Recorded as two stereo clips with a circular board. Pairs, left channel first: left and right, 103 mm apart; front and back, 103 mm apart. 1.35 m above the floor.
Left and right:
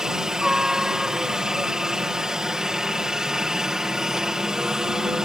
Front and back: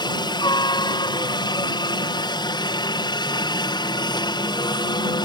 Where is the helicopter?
10° right.